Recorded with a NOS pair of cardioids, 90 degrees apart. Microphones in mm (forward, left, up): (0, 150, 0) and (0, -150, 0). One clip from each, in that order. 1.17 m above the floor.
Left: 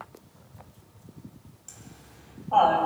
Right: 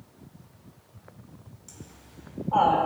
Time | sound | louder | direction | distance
1.7 | laughter | left 1 dB | 20° left | 8 m